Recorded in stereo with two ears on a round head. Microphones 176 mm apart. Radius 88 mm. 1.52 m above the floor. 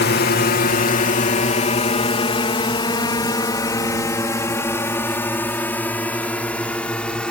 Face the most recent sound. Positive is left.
turn(degrees=5)  # may be behind; listen again after turning